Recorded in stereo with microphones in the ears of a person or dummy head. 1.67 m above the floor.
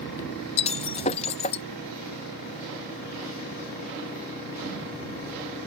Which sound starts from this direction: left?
Breaking glass, at 0.6 s.